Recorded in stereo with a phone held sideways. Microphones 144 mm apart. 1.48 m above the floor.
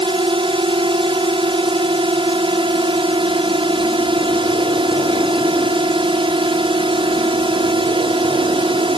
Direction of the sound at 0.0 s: 40° right (ahead or behind).